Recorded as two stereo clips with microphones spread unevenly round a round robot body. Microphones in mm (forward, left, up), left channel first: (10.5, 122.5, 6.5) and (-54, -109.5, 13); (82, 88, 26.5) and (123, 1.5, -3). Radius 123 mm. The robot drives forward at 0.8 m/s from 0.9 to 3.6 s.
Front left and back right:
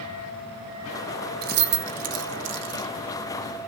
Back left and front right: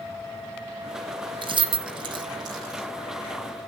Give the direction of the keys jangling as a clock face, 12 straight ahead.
2 o'clock.